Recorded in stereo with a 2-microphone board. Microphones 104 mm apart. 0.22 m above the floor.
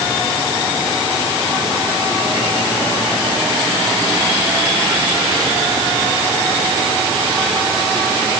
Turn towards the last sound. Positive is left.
No sound to turn to.